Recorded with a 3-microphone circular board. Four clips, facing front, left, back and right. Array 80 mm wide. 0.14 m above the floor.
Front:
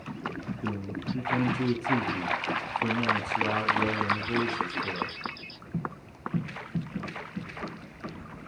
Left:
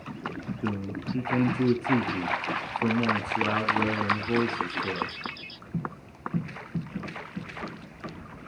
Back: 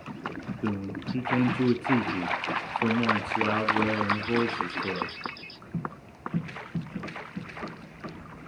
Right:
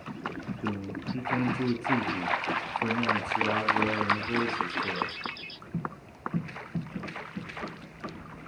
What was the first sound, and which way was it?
A man speaking, 165° left.